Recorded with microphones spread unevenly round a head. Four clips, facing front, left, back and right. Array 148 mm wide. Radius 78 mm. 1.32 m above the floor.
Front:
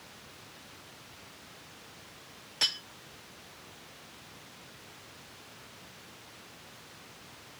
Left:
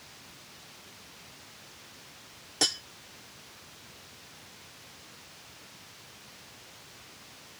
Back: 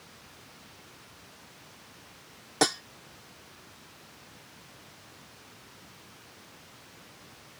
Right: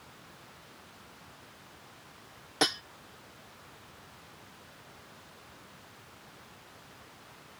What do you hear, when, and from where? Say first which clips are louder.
2.6 s cutlery clinking: right 4 dB, back 14 dB; 165° right